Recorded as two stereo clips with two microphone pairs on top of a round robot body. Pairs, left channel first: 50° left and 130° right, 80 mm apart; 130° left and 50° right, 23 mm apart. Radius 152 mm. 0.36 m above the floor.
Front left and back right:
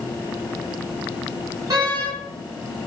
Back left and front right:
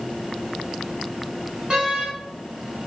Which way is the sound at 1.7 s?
80° right.